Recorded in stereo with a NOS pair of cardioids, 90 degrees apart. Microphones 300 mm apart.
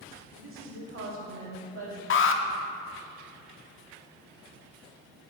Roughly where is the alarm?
Ahead left.